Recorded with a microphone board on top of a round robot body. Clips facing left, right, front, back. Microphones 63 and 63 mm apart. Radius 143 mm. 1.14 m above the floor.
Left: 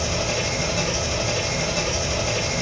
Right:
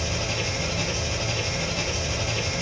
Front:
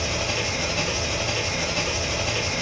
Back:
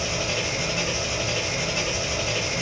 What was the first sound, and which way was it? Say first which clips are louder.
An engine running: left 4 dB, even; 110° left.